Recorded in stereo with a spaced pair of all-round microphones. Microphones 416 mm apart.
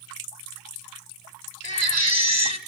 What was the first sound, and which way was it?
A baby crying, 40° left (ahead or behind).